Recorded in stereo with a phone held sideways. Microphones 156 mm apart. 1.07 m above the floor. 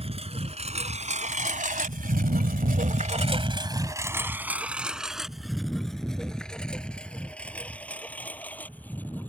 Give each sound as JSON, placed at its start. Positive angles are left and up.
{"t": 0.0, "sound": "a lawn mower", "side_deg": -40}